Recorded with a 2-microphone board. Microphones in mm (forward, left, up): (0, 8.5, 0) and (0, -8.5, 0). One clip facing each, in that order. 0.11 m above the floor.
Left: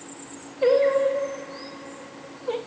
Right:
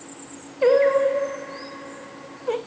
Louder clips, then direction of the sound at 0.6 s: Right 2 dB; 55° right (ahead or behind).